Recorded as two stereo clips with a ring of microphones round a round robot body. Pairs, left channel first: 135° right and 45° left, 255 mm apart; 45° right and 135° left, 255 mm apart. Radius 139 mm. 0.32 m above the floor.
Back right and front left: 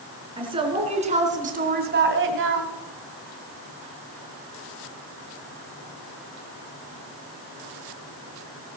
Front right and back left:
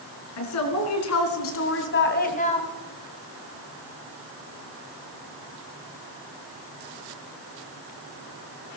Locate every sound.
0.4 s a woman speaking: 25° right, 4 m; by 2.7 s 25° left, 2.0 m